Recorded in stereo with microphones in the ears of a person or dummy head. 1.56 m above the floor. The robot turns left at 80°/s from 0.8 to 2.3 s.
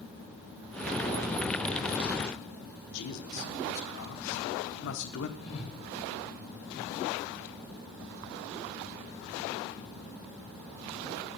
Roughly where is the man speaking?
Left.